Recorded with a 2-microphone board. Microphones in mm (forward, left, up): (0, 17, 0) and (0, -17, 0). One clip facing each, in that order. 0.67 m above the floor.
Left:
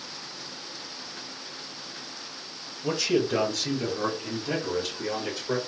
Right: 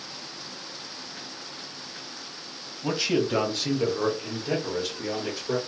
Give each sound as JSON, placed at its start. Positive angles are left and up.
{"t": 2.8, "sound": "a man speaking", "side_deg": -30, "distance_m": 1.1}